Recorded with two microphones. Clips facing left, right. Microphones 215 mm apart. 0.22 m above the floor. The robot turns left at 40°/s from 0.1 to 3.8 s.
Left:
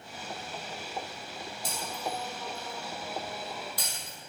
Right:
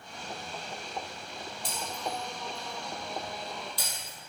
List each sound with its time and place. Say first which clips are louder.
1.6 s breaking glass: even; 45° left (ahead or behind), 3.5 m